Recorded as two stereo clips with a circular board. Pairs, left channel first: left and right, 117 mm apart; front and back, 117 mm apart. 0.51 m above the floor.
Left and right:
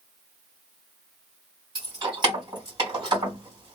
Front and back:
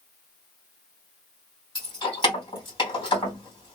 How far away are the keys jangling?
About 1.9 m.